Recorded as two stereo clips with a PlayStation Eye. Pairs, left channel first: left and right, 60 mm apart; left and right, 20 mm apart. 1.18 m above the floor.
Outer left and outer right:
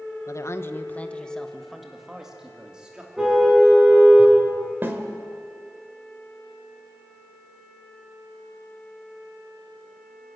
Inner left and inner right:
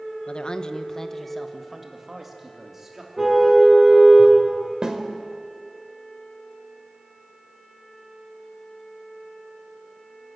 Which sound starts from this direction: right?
A snare drum, at 4.8 s.